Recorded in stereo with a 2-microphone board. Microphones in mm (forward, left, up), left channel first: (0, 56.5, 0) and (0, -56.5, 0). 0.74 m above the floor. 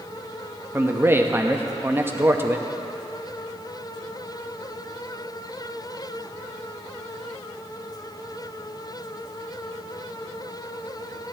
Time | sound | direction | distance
0.7 | a man speaking | 20° right (ahead or behind) | 0.7 m